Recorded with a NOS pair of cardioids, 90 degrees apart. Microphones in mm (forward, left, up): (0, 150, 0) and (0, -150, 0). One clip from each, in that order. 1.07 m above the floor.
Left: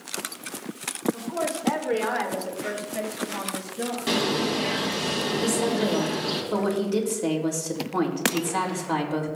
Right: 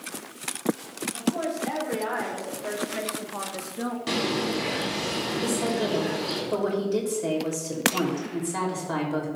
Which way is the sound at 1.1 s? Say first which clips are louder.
Even; 35° left.